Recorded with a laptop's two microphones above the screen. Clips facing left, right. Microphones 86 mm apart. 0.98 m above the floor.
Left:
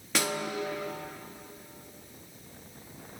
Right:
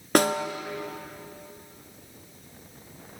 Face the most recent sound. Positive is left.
turn(degrees=-50)  # may be behind; listen again after turning